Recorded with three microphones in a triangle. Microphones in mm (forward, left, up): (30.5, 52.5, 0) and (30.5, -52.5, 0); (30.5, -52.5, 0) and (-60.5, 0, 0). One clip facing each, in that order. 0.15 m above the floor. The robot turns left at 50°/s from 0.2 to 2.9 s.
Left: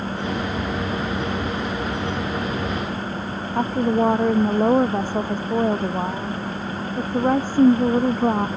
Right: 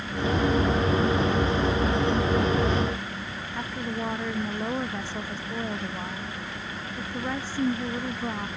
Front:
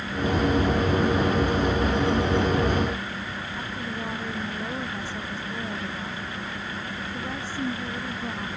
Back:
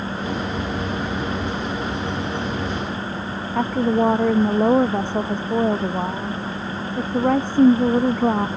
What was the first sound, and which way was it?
A woman speaking, 130° left.